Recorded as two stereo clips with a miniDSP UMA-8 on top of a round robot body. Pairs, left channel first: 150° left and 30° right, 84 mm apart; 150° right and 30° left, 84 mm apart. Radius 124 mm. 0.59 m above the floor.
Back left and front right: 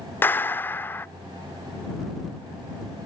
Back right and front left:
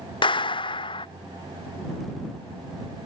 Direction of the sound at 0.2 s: 145° right.